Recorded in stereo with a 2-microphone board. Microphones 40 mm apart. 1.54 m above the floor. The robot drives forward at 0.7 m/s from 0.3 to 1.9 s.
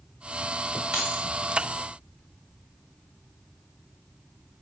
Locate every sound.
0.9 s keys jangling: 15° right (ahead or behind), 1.6 m